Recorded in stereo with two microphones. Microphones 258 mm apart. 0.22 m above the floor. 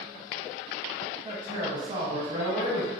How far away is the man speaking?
About 1.1 m.